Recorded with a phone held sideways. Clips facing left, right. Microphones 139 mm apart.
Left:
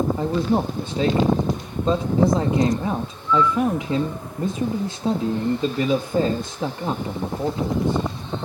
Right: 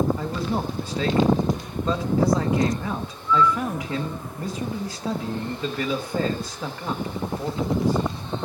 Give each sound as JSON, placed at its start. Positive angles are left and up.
{"t": 0.2, "sound": "a man speaking", "side_deg": 25, "distance_m": 1.1}